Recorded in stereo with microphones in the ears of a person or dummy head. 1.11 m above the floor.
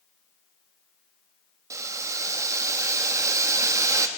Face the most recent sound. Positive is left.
turn(degrees=-15)  # may be behind; listen again after turning